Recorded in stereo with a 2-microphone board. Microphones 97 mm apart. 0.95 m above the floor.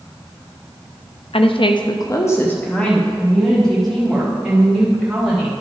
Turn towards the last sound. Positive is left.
turn(degrees=-10)  # may be behind; listen again after turning